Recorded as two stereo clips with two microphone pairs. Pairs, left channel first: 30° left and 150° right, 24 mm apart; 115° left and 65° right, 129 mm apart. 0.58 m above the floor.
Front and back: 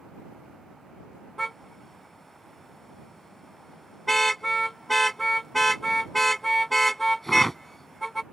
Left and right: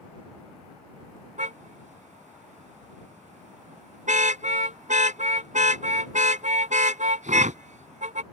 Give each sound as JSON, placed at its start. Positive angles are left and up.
{"t": 1.4, "sound": "a car horn", "azimuth_deg": -45}